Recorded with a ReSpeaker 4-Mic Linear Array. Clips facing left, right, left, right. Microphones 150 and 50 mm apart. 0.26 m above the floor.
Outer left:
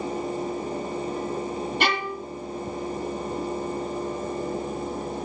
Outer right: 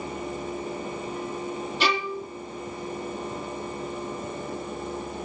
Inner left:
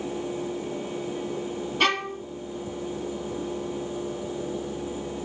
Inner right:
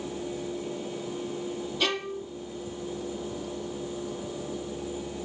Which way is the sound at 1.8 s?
60° left (ahead or behind).